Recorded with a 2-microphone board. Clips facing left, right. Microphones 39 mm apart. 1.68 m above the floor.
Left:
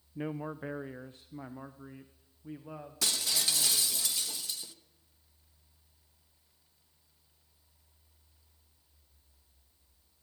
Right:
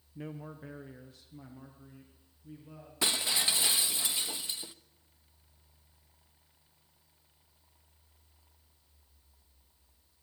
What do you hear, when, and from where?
0.1 s a man speaking: 30° left (ahead or behind), 0.6 m; by 4.0 s 50° left (ahead or behind), 2.5 m
3.0 s breaking glass: 25° right (ahead or behind), 1.0 m